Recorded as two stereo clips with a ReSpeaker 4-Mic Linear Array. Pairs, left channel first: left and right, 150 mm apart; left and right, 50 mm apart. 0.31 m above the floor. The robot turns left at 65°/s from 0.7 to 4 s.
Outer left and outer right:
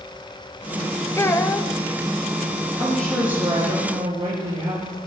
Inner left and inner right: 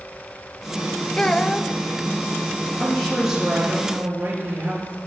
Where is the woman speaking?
20° left, 5.5 m; by 5.0 s 55° right, 5.5 m.